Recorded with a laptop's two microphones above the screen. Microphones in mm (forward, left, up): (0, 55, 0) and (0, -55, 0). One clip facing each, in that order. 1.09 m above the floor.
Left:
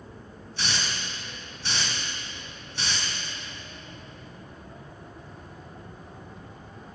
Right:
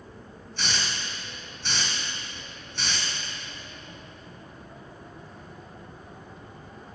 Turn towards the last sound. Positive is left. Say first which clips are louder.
# even
turn(degrees=10)  # may be behind; listen again after turning